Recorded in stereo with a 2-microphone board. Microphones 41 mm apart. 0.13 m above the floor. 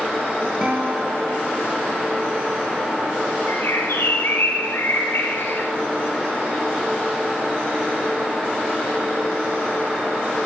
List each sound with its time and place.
0.6 s a guitar: 20° right (ahead or behind), 7.5 m
3.5 s a bird: 75° left (ahead or behind), 6 m